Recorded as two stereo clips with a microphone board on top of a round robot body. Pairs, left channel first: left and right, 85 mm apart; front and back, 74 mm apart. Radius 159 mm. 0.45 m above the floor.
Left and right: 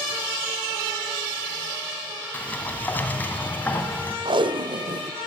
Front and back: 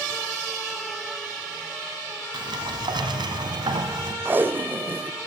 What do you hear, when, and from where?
2.3 s a sliding door: 160° left, 2.5 m
4.2 s tape being pulled: 115° right, 1.1 m